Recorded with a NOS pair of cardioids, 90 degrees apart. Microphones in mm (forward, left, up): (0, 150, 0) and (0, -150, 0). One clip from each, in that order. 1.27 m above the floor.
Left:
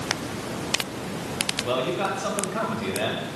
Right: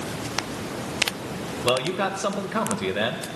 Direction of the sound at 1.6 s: 55° right.